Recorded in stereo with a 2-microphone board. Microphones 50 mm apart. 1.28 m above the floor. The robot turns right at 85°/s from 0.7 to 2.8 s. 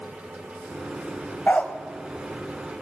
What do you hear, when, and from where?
1.5 s a dog barking: 35° left (ahead or behind), 1.5 m; by 1.7 s 20° left (ahead or behind), 1.5 m